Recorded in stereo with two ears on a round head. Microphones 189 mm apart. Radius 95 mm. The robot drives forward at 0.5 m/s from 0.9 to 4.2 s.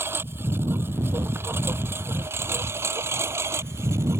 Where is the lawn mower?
10° right (ahead or behind); by 4.2 s 15° right (ahead or behind).